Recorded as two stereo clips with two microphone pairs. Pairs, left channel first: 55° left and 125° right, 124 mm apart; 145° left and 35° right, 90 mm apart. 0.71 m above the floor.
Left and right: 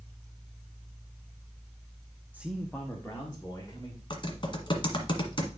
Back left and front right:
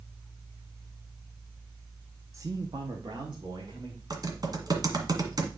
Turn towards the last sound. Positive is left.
turn(degrees=5)